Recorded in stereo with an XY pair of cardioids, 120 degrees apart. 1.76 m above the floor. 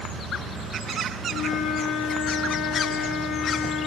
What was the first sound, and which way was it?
A flute, 65° left.